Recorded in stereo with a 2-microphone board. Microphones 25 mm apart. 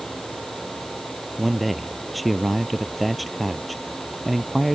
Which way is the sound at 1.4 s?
Centre (ahead or behind).